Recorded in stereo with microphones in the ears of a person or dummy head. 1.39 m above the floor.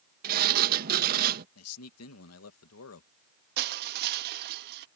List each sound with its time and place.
0.2 s a sliding door: 50° right (ahead or behind)
1.6 s a man speaking: 80° left
3.6 s crushing: 55° right (ahead or behind)